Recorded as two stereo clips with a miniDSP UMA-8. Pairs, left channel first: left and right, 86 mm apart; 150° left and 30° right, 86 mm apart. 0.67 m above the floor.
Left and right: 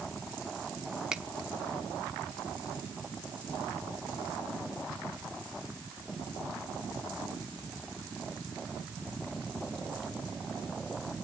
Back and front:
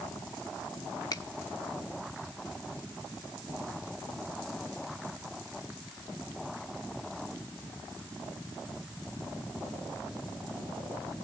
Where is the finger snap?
170° right, 0.9 m.